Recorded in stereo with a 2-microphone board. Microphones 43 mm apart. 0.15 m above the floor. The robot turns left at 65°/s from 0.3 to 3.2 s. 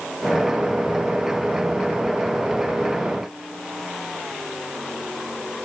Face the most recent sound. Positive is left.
No sound to turn to.